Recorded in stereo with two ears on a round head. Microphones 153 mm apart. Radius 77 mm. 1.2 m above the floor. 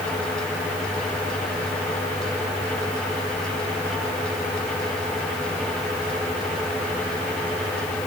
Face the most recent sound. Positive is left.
No sound to turn to.